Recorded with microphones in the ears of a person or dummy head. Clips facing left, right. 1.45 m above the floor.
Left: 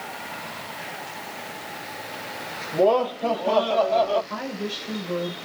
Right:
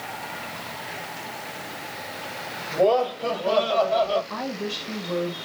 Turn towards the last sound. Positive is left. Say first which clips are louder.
# even
turn(degrees=-5)  # may be behind; listen again after turning